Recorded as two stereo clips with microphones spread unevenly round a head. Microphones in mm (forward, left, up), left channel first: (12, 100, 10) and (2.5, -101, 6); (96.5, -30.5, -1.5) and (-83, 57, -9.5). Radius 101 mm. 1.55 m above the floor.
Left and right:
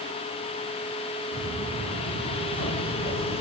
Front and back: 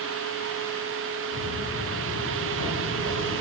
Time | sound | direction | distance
1.3 | footsteps | straight ahead | 5.5 m